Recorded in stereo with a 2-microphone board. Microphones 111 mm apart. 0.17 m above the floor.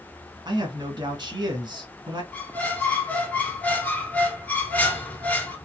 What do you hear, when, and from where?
0.5 s a man speaking: 45° right (ahead or behind), 1.8 m
2.3 s a squeak: 15° left (ahead or behind), 1.5 m